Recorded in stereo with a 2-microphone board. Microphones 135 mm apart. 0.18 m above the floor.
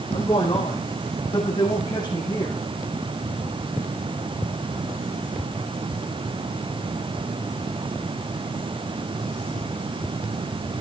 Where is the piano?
No piano in this recording.